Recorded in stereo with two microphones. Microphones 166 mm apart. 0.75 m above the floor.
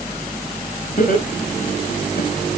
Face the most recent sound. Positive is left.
turn(degrees=70)  # may be behind; listen again after turning